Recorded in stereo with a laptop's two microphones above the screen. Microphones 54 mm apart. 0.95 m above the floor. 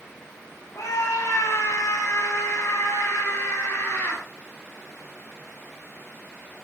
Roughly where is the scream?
Left.